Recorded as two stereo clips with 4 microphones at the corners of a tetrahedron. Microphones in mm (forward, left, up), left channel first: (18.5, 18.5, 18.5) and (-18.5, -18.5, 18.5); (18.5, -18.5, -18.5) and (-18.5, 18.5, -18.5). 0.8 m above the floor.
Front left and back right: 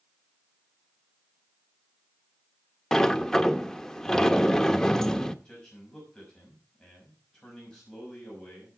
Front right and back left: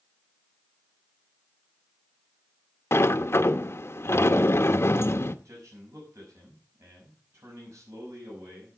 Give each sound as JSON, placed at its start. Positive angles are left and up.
{"t": 2.9, "sound": "a sliding door", "azimuth_deg": -35, "distance_m": 0.7}
{"t": 5.5, "sound": "a man speaking", "azimuth_deg": 120, "distance_m": 6.0}